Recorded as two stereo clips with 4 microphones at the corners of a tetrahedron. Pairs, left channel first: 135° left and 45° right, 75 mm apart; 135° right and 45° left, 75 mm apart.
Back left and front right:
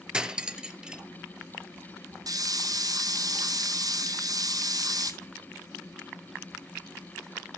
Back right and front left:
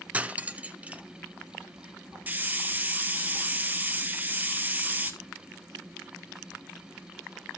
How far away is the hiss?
About 1.2 m.